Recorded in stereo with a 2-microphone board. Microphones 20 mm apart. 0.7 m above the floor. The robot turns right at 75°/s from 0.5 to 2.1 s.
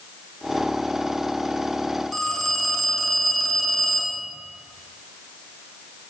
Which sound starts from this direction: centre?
A phone ringing, at 2.1 s.